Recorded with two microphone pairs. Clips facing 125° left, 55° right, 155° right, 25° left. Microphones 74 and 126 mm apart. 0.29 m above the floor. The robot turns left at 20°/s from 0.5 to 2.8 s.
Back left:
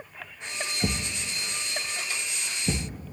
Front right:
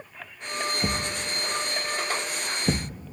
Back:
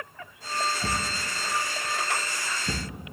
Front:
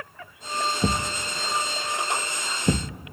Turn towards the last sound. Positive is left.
turn(degrees=0)